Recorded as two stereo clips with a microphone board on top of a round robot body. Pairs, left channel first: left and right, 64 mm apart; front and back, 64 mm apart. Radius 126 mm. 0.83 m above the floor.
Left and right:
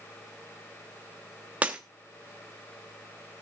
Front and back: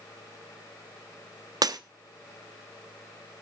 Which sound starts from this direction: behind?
Breaking glass, at 1.6 s.